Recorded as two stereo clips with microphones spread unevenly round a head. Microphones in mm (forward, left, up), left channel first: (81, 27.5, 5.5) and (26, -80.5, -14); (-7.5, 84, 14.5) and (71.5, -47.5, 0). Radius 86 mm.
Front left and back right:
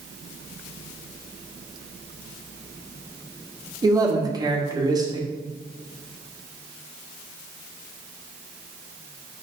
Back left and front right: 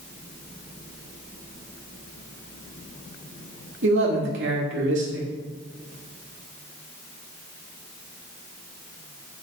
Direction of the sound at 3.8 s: 55° right.